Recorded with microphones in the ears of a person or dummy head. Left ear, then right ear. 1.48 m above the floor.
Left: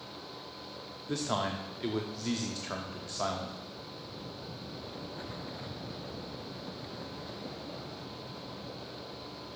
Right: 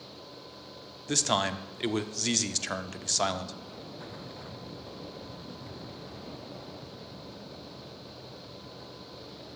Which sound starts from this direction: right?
A man speaking, at 1.1 s.